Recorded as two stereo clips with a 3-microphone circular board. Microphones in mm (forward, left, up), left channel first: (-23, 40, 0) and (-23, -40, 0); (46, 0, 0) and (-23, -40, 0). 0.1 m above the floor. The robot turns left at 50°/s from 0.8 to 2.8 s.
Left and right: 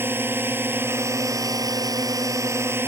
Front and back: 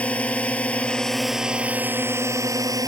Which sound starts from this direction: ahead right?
A drone, at 0.0 s.